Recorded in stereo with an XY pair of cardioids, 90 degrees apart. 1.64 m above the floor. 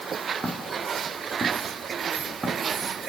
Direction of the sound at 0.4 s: 30° right.